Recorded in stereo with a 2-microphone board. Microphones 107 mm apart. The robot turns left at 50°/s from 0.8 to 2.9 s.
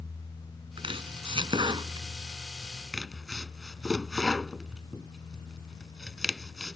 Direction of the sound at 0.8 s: 60° right (ahead or behind).